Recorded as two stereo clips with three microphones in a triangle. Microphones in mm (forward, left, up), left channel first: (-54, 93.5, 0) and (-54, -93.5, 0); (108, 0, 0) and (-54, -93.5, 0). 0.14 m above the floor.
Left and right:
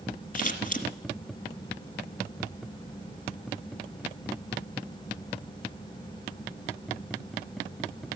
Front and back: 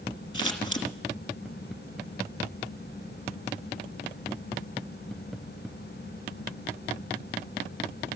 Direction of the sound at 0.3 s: 85° left.